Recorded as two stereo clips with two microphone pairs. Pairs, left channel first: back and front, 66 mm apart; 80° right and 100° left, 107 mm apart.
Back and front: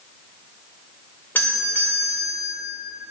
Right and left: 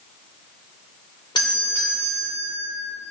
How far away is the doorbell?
About 2.5 m.